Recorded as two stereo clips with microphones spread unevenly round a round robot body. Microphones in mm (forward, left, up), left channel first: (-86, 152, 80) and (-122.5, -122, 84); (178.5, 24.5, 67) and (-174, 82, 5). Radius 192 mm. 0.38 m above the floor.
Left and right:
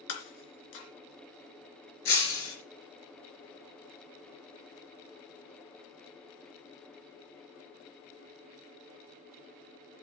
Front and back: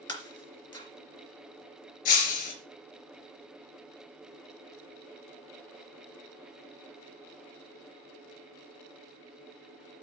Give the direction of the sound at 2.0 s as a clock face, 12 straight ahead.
11 o'clock.